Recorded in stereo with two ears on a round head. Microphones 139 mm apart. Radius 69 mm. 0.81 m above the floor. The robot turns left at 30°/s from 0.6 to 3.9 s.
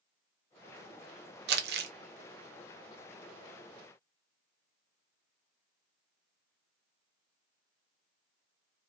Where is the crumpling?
75° right (ahead or behind), 0.5 m; by 1.9 s 70° right (ahead or behind), 0.5 m.